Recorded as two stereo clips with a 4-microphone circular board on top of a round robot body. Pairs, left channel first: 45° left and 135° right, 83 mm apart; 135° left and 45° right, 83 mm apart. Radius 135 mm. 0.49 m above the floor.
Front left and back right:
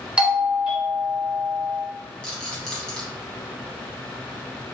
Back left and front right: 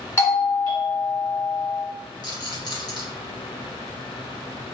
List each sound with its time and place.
0.2 s a doorbell: 160° left, 2.0 m
2.2 s a rattle: 120° left, 1.7 m